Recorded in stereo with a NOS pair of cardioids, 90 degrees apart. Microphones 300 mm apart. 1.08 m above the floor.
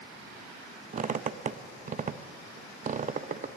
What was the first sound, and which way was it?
A squeak, 25° right.